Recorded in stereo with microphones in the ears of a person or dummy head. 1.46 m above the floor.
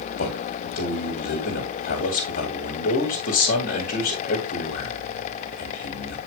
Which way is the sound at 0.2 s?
50° left (ahead or behind).